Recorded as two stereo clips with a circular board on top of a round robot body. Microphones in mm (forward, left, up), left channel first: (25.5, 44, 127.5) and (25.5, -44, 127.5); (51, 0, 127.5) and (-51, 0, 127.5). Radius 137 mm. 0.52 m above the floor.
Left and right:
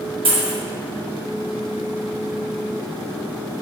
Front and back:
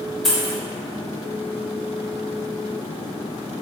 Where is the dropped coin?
90° right, 1.0 m.